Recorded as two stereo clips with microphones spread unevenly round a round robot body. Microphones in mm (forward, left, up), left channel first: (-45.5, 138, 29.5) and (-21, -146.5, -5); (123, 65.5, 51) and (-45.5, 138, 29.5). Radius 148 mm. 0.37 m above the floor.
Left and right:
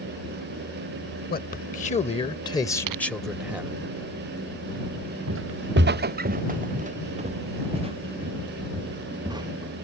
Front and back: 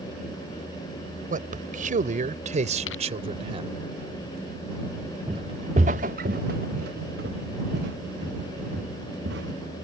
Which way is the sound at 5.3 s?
130° right.